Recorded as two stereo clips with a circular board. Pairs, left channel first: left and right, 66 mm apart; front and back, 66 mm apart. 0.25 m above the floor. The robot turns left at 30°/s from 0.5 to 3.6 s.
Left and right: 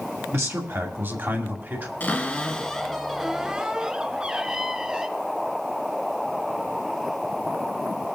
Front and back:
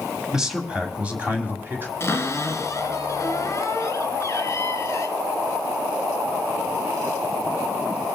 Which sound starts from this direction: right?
A man speaking, at 0.3 s.